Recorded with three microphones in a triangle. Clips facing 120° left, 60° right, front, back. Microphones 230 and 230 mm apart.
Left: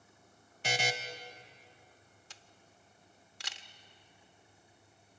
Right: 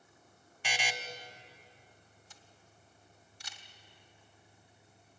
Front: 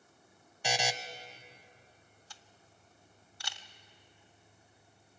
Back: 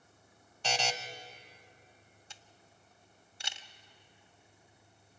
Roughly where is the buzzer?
Left.